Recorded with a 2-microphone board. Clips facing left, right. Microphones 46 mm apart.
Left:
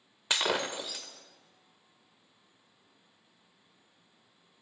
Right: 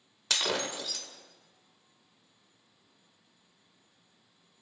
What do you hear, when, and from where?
0.3 s breaking glass: 25° left (ahead or behind), 0.8 m